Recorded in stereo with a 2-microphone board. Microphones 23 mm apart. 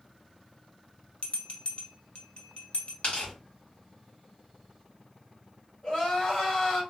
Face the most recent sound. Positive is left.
turn(degrees=30)  # may be behind; listen again after turning